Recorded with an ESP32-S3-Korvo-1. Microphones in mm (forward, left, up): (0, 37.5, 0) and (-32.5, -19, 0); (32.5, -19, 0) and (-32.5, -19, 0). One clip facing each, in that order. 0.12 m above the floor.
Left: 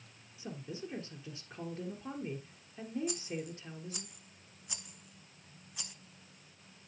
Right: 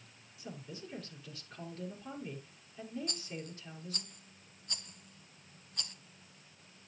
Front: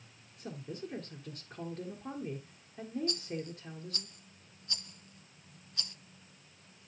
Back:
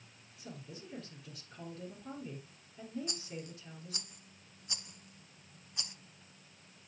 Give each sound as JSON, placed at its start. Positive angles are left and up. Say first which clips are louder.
{"t": 0.4, "sound": "a woman speaking", "louder": "left 4 dB, front 7 dB", "azimuth_deg": 10, "distance_m": 2.5}
{"t": 3.1, "sound": "a rattle", "louder": "left 5 dB, front 6 dB", "azimuth_deg": 130, "distance_m": 1.0}